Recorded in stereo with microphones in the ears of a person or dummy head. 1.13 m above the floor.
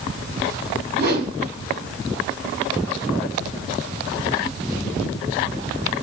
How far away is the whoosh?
About 3 m.